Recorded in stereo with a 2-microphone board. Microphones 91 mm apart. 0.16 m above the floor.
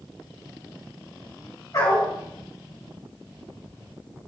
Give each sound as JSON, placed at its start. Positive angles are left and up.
{"t": 1.7, "sound": "a dog barking", "side_deg": 40, "distance_m": 5.0}